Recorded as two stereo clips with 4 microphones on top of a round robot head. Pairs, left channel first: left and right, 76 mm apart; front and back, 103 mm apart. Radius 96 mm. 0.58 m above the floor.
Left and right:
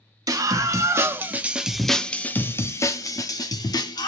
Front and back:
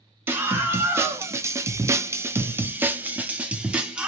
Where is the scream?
115° right, 1.2 m; by 4.1 s 100° left, 1.6 m.